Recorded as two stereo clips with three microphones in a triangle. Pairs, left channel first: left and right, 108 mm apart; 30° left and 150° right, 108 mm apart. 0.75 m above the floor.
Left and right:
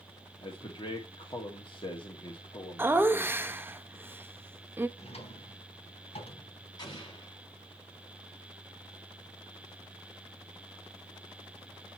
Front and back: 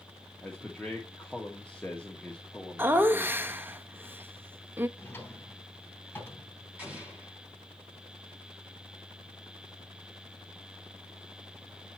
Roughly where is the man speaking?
Left.